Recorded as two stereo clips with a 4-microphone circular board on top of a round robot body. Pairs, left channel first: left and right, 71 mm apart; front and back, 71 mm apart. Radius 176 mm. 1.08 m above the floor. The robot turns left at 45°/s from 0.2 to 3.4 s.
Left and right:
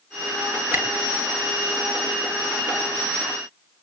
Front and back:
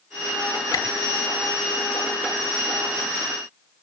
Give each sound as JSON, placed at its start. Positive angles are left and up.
{"t": 0.7, "sound": "a camera shutter", "azimuth_deg": -25, "distance_m": 4.0}